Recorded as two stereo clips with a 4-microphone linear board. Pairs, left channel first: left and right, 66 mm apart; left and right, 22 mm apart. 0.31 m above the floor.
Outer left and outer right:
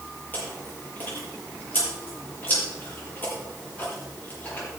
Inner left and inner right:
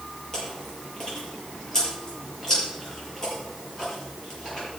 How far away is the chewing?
About 6.5 m.